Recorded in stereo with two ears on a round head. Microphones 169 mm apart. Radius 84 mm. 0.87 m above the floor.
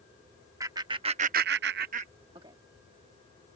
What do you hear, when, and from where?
0.6 s laughter: 20° right (ahead or behind)